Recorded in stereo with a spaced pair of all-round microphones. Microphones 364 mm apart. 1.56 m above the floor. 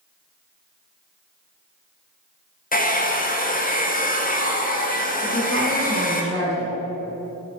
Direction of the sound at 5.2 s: 35° right (ahead or behind).